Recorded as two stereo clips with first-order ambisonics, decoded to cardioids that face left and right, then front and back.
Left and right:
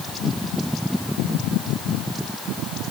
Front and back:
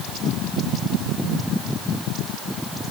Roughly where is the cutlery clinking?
No cutlery clinking in this recording.